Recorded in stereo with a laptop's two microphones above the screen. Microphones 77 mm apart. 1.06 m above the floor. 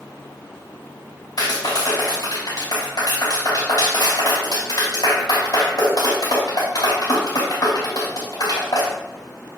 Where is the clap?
60° left (ahead or behind), 4.5 m.